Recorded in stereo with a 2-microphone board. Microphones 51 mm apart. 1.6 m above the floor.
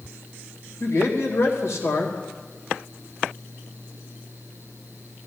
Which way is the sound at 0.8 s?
70° left (ahead or behind).